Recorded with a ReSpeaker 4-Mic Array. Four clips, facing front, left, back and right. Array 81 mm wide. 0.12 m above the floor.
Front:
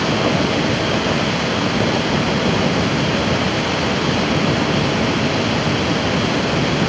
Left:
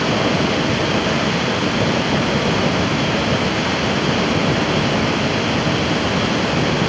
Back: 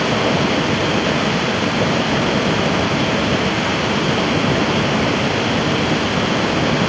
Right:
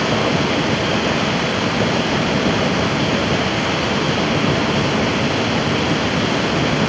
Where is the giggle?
I don't hear a giggle.